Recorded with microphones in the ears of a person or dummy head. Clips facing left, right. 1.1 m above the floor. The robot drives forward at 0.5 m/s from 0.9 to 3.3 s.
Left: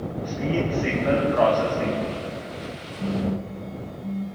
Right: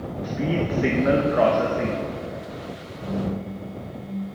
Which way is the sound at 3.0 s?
40° left (ahead or behind).